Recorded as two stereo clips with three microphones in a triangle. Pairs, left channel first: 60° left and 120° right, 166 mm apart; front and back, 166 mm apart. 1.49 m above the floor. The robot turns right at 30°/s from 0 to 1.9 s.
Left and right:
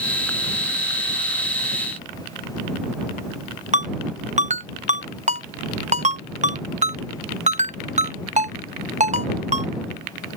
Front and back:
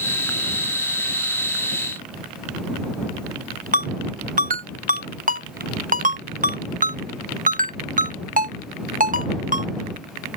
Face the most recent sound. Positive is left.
turn(degrees=-155)